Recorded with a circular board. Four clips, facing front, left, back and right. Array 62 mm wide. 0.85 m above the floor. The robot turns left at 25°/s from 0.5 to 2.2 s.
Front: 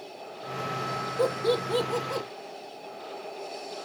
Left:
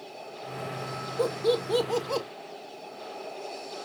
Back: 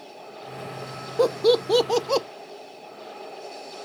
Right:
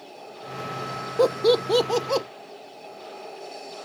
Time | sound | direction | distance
1.2 | laughter | 125° right | 0.5 m